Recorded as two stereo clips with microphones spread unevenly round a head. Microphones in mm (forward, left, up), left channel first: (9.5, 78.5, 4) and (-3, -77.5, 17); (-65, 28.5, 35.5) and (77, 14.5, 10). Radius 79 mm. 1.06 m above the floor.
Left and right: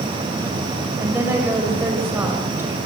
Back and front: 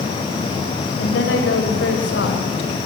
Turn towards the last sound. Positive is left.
turn(degrees=-170)